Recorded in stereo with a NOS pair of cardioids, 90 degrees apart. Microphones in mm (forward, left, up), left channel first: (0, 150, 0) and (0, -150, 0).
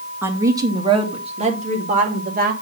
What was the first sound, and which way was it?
A woman speaking, 5° right.